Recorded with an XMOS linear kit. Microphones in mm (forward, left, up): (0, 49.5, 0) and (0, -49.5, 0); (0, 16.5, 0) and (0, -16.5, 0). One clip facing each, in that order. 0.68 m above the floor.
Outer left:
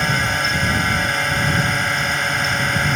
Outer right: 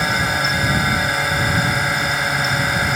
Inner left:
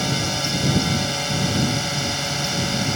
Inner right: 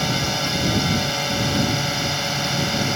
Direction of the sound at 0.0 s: 5° right (ahead or behind).